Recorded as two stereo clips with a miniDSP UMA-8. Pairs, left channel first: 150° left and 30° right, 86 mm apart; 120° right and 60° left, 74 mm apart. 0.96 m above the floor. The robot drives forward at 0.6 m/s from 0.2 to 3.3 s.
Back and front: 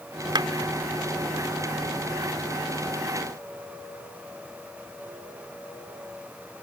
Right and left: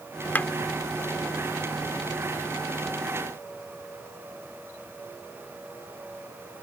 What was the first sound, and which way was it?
A clap, 55° right.